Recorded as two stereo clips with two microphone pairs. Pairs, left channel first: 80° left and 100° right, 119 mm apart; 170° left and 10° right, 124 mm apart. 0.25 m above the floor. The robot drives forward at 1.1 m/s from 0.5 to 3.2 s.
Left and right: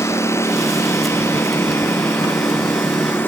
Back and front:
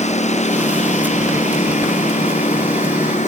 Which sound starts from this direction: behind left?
A lawn mower, at 0.0 s.